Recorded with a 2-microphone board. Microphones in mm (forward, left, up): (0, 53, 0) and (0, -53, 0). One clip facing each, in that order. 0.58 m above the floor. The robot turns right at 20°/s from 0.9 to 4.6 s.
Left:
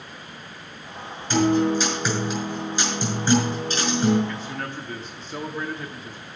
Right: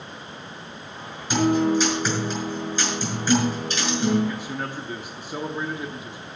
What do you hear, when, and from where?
1.3 s a guitar: 15° right, 5.5 m; by 4.2 s 40° left, 5.5 m
4.3 s a man speaking: 15° right (ahead or behind), 0.9 m